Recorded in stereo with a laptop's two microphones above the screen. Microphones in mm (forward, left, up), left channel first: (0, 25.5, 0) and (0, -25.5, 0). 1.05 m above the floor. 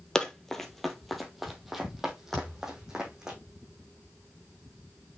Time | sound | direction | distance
0.1 | running footsteps | 15° left (ahead or behind) | 1.1 m
2.3 | a thud | 5° left (ahead or behind) | 4 m